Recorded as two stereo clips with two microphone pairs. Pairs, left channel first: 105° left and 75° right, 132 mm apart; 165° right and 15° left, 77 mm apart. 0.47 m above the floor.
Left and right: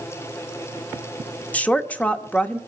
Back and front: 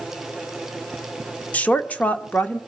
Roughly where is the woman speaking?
Behind.